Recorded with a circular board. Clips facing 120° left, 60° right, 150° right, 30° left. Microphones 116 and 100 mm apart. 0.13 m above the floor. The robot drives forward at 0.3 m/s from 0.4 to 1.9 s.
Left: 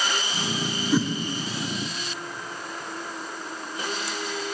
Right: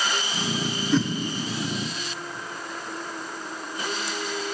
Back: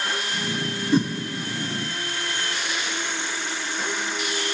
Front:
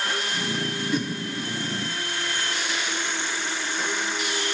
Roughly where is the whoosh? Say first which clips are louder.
Even, back 7 dB; behind.